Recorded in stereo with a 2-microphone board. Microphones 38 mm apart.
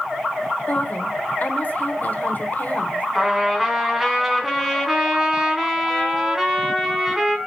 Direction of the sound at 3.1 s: 5° right (ahead or behind).